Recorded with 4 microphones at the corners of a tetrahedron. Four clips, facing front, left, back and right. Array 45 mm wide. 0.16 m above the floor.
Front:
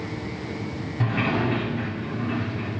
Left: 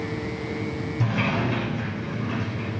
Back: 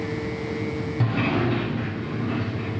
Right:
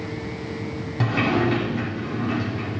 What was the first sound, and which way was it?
A sliding door, 100° right.